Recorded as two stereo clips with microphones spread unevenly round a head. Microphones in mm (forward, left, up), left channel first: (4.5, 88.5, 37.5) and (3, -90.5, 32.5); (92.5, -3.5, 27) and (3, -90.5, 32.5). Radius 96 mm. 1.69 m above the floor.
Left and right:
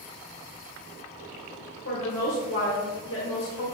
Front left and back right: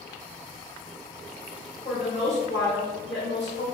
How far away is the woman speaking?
About 1.4 m.